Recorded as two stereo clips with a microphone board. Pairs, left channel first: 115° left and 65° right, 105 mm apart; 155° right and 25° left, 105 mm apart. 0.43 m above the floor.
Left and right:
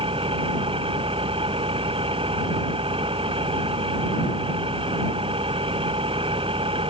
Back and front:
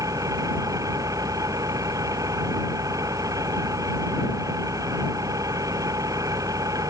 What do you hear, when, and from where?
0.0 s an engine running: 35° right